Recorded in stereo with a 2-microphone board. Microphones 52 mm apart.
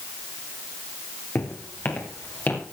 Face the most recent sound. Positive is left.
turn(degrees=35)  # may be behind; listen again after turning